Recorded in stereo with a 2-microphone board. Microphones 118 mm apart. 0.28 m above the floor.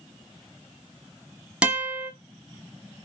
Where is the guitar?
10° right (ahead or behind), 1.3 m.